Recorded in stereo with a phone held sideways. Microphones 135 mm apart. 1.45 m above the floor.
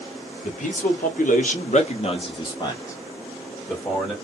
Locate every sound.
0.4 s a man speaking: 70° left (ahead or behind), 0.9 m; by 4.1 s 5° left (ahead or behind), 1.4 m